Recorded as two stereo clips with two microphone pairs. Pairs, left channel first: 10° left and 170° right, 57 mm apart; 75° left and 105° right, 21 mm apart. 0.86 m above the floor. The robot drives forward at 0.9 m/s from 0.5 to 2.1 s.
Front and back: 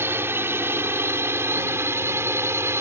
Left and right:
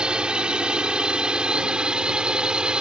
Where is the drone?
135° right; by 2.8 s 140° right.